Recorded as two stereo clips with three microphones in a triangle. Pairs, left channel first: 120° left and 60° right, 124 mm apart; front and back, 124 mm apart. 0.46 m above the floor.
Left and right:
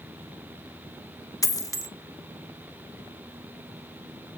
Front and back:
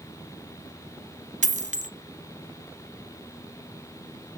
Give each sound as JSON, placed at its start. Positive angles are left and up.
{"t": 1.4, "sound": "a dropped coin", "azimuth_deg": 180, "distance_m": 0.7}